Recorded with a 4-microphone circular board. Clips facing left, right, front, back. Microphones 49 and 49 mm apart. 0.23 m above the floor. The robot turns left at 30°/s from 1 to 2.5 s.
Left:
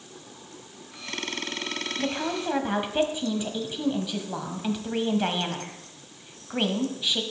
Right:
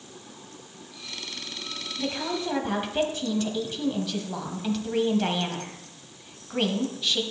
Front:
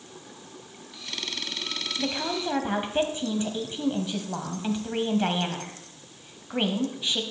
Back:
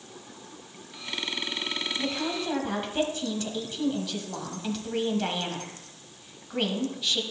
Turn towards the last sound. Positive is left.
turn(degrees=30)